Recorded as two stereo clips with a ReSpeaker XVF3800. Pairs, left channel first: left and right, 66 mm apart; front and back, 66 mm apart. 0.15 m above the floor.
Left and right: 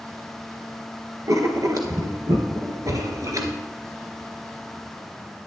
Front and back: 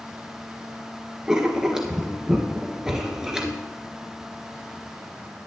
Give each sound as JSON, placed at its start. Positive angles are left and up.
{"t": 1.3, "sound": "writing", "azimuth_deg": -100, "distance_m": 1.5}